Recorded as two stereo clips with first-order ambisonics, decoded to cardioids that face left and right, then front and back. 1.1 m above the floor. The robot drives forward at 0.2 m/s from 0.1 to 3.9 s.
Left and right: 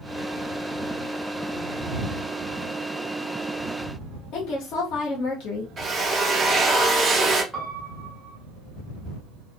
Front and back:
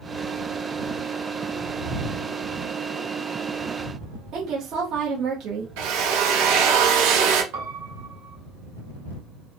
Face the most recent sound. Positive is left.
turn(degrees=175)